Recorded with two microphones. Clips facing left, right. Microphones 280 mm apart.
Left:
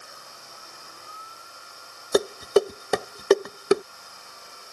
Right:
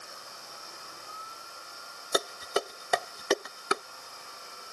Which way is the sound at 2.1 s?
55° left (ahead or behind).